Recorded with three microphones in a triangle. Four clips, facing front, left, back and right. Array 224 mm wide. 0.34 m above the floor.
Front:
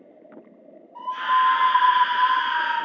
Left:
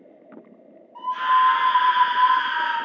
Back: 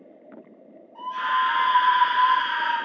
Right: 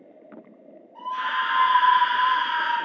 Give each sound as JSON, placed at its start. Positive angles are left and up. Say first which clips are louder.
{"t": 0.9, "sound": "a scream", "louder": "left 8 dB, front 3 dB", "azimuth_deg": 50, "distance_m": 1.0}